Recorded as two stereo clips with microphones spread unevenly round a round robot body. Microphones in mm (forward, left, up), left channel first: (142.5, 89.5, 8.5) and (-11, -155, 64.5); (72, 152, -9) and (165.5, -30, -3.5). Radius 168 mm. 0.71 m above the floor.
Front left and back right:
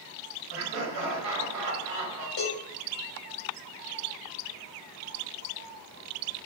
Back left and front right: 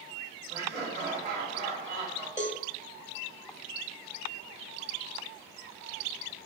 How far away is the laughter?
About 1.1 m.